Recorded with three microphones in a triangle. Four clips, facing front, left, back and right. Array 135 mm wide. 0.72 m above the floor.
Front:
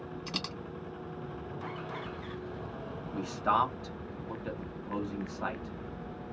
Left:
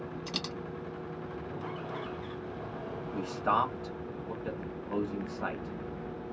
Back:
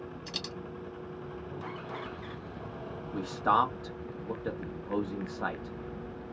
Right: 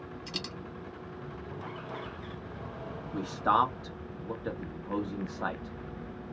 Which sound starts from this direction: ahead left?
A dropped coin, at 0.3 s.